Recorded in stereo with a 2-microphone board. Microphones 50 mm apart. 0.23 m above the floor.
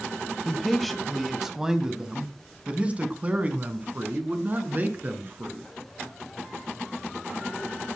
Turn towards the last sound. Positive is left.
turn(degrees=-40)  # may be behind; listen again after turning